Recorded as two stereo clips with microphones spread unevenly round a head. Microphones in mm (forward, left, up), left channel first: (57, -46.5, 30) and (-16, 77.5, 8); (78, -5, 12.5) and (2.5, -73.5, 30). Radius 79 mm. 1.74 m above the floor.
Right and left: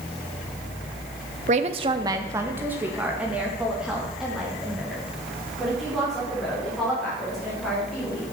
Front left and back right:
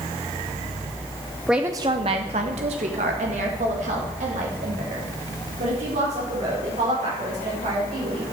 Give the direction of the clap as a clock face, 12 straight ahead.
I don't hear a clap.